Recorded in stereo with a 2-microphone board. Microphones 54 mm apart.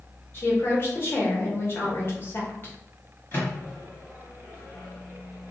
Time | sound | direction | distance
0.3 | a woman speaking | 40° left (ahead or behind) | 0.8 m
3.3 | a microwave | 35° left (ahead or behind) | 1.2 m